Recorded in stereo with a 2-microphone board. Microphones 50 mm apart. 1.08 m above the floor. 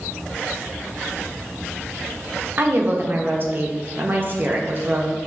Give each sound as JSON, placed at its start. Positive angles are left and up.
{"t": 2.6, "sound": "a woman speaking", "side_deg": -40, "distance_m": 0.6}